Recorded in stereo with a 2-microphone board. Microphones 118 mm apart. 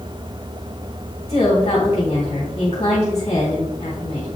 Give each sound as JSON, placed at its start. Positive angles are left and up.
{"t": 1.3, "sound": "a woman speaking", "side_deg": 55, "distance_m": 2.5}